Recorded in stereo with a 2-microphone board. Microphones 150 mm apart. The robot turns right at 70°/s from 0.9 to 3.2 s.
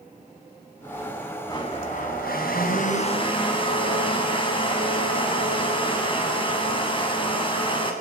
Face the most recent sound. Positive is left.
turn(degrees=145)